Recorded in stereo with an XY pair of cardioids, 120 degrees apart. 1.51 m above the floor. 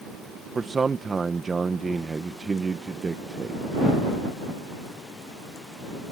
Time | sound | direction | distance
0.6 | a man speaking | 25° right | ?